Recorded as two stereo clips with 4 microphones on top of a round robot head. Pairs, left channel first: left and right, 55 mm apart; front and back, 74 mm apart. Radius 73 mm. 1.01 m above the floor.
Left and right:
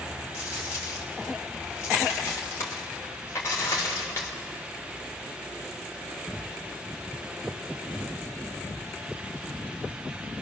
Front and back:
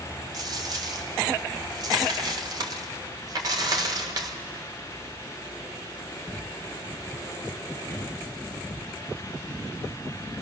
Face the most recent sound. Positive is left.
turn(degrees=150)